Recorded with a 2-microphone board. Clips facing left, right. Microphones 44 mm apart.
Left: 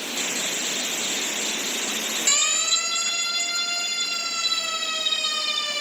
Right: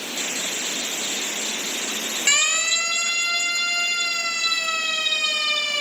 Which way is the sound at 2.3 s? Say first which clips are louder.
Right 6 dB; 50° right (ahead or behind).